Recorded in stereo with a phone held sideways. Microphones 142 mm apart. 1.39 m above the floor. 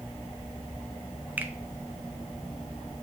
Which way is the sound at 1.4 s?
10° right (ahead or behind).